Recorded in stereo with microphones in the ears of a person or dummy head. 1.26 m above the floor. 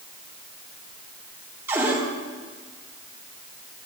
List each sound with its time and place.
1.7 s a cupboard door: 5° right (ahead or behind), 3 m